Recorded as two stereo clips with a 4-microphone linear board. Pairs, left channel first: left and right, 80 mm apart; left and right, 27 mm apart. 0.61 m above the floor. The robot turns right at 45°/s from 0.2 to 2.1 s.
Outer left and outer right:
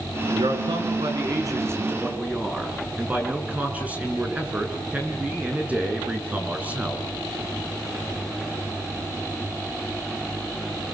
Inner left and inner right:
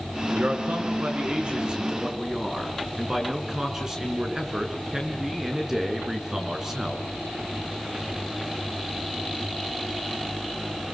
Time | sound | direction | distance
0.3 | a man speaking | 100° right | 7 m